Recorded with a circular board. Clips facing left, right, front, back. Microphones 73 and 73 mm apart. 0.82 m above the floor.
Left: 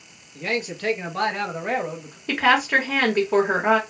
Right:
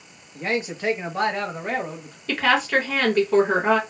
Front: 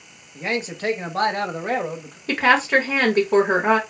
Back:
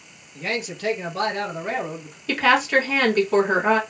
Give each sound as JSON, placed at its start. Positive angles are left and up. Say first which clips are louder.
{"t": 0.3, "sound": "a man speaking", "louder": "right 1 dB, front 2 dB", "azimuth_deg": -55, "distance_m": 0.8}
{"t": 2.3, "sound": "a woman speaking", "louder": "left 1 dB, front 1 dB", "azimuth_deg": 25, "distance_m": 1.2}